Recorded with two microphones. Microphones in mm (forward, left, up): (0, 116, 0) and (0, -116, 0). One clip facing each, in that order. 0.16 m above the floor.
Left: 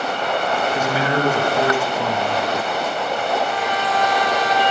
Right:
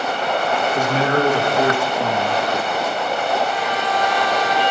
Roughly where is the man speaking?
Centre.